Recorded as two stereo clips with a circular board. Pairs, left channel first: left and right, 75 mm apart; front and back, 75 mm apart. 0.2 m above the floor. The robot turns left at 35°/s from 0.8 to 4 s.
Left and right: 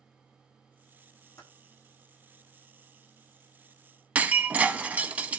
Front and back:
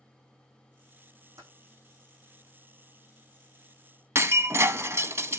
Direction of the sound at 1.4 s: 145° left.